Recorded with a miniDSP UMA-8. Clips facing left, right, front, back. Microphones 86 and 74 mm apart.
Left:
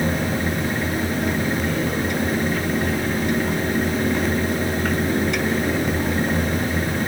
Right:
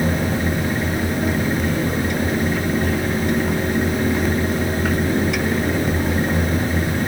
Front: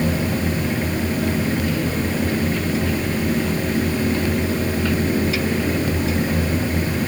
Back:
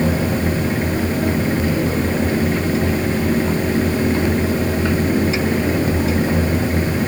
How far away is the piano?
I don't hear a piano.